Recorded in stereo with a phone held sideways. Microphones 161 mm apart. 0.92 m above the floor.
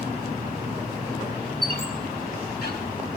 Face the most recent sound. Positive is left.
turn(degrees=80)